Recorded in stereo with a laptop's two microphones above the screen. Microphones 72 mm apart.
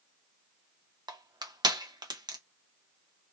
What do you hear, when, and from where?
1.1 s crushing: 80° right, 0.8 m